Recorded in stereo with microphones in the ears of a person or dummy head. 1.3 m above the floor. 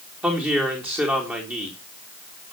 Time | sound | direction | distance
0.2 | a woman speaking | 10° right (ahead or behind) | 4 m